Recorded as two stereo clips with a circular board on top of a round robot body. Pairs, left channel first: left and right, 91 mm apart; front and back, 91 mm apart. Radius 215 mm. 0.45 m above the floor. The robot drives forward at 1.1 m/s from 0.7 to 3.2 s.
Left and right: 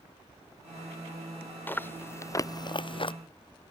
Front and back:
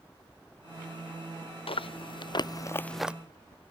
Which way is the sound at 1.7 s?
20° left.